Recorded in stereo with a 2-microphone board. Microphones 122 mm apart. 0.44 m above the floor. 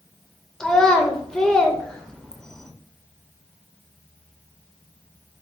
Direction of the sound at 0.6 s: 5° left (ahead or behind).